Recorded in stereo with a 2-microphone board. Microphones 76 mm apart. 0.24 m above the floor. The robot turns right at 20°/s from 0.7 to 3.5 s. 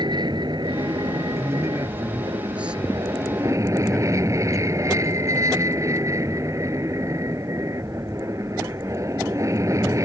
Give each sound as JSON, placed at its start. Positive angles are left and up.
{"t": 0.0, "sound": "an aircraft", "azimuth_deg": -100}
{"t": 1.4, "sound": "a man speaking", "azimuth_deg": -40}